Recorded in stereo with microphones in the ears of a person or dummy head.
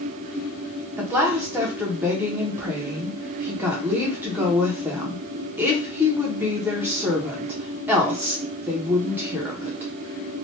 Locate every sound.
1.0 s a woman speaking: 5° right (ahead or behind), 1.0 m